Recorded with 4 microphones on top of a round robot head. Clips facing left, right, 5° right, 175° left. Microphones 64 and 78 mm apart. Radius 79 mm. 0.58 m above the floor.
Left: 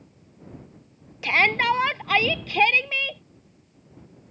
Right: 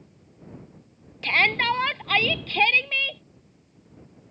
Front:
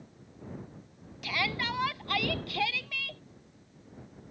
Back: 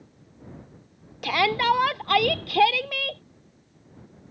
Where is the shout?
170° left.